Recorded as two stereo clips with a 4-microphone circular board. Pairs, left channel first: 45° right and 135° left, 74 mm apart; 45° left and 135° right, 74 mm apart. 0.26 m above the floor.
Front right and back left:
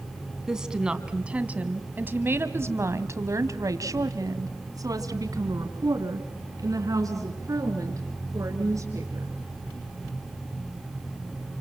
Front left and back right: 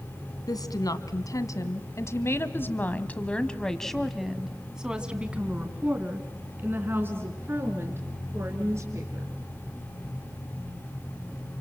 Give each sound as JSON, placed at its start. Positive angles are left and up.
{"t": 0.5, "sound": "a woman speaking", "azimuth_deg": 55, "distance_m": 2.0}